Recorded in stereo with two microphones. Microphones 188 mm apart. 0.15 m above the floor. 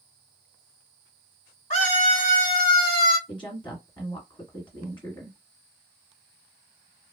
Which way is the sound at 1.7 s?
30° left (ahead or behind).